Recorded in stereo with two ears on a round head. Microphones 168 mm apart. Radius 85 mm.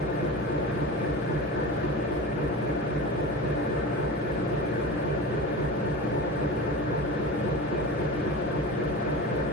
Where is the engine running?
50° left (ahead or behind), 3 m.